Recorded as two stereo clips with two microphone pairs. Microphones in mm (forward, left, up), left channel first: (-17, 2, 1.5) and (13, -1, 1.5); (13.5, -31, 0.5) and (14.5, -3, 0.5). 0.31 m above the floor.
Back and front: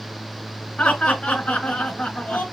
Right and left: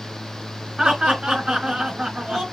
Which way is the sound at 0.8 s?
155° left.